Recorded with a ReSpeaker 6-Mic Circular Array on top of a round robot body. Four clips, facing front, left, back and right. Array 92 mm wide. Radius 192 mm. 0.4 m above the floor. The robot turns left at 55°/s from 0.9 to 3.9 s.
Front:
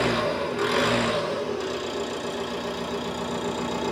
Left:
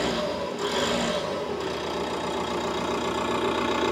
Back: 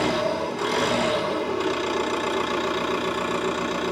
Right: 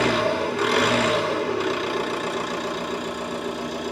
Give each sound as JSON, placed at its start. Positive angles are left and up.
{"t": 0.0, "sound": "an engine running", "azimuth_deg": -80, "distance_m": 2.0}